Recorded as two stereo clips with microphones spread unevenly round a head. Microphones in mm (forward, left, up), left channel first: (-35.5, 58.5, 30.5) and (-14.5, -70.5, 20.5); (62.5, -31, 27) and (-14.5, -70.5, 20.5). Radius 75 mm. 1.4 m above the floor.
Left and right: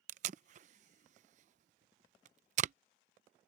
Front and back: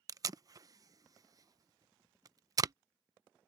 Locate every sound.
0.1 s tape being pulled: 110° right